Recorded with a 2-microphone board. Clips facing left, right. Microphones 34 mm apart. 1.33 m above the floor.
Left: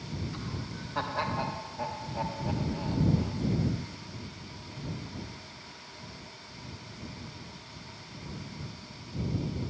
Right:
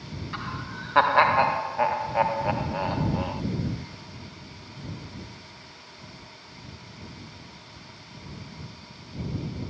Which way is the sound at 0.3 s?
70° right (ahead or behind).